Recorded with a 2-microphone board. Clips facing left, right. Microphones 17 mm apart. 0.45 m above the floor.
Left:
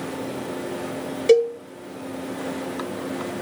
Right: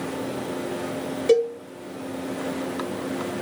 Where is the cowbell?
25° left (ahead or behind), 0.7 m.